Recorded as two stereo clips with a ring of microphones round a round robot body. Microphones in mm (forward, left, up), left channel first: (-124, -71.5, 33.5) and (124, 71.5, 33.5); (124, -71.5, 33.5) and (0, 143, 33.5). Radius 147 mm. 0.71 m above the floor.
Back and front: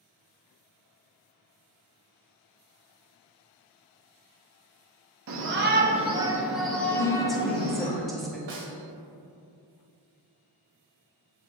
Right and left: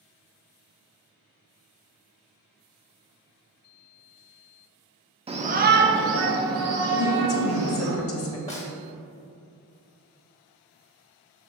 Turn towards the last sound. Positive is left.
turn(degrees=5)